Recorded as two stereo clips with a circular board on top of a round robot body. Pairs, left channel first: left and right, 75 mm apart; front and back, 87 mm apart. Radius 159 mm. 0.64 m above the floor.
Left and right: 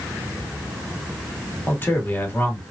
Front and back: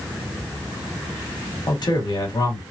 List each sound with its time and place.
1.7 s a man speaking: 30° left, 1.8 m